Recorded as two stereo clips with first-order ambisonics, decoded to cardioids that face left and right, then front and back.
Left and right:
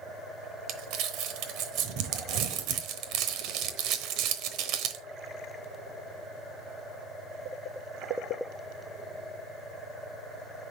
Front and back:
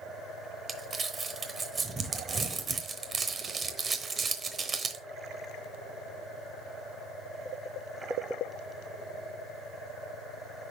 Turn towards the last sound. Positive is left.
turn(degrees=-110)